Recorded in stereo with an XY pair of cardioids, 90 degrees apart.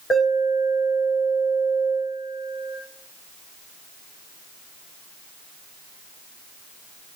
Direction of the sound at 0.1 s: 40° left.